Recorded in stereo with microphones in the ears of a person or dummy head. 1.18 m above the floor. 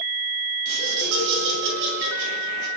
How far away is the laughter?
About 8.5 m.